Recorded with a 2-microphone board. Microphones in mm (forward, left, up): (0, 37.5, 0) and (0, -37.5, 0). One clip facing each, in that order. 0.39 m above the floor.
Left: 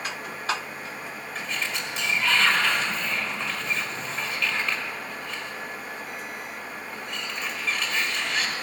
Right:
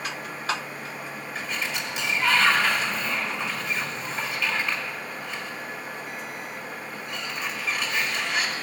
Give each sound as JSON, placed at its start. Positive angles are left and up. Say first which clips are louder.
{"t": 1.4, "sound": "a sliding door", "louder": "even", "side_deg": -5, "distance_m": 1.9}